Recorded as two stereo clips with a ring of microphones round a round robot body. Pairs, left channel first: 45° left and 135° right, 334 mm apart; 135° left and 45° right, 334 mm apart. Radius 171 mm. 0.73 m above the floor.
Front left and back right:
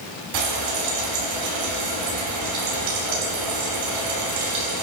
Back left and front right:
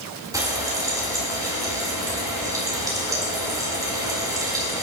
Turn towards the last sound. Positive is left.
turn(degrees=-125)